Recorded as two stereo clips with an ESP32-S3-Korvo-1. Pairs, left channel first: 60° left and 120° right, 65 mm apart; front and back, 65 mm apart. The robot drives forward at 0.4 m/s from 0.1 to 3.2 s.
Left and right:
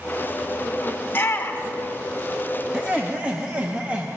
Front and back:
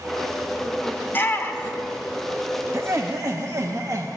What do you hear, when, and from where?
1.1 s a shout: 30° left, 1.2 m; by 1.9 s 50° left, 1.0 m
2.7 s laughter: 170° left, 0.7 m; by 4.1 s 175° left, 0.8 m